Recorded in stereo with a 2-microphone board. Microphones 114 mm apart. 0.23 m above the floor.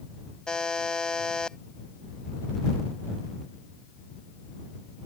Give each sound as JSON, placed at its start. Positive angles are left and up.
{"t": 0.5, "sound": "a buzzer", "side_deg": 10}